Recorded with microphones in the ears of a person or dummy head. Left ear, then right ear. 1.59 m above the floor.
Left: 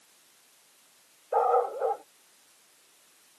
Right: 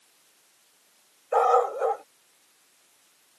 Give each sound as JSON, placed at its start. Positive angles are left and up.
{"t": 1.3, "sound": "a dog barking", "side_deg": -65}